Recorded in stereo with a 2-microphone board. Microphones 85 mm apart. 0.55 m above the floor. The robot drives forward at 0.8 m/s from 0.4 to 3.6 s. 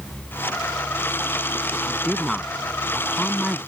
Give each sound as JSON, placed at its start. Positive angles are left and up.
{"t": 1.8, "sound": "a woman speaking", "side_deg": 0}